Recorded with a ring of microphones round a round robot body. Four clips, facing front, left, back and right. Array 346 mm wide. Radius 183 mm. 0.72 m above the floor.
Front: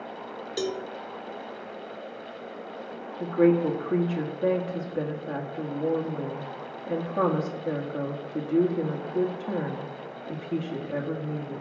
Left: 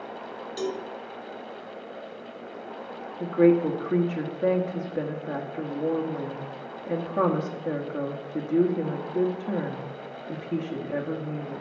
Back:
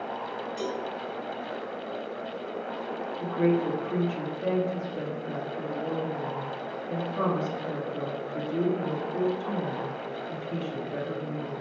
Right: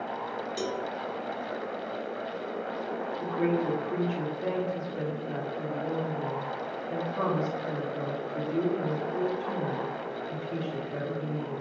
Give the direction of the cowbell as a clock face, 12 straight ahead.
12 o'clock.